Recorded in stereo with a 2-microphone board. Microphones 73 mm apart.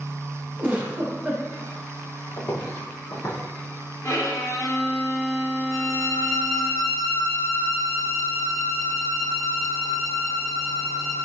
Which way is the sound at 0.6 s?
15° right (ahead or behind).